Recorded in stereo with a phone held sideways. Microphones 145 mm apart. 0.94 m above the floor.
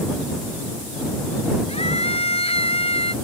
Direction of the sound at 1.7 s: 45° left (ahead or behind).